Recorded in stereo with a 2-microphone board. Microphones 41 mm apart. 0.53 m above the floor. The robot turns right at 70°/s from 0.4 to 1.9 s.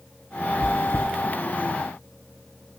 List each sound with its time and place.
0.6 s chewing: 75° left (ahead or behind), 1.7 m; by 1.1 s 70° left (ahead or behind), 1.7 m